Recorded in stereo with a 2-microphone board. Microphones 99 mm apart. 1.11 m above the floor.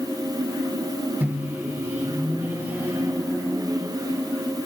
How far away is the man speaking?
I don't hear a man speaking.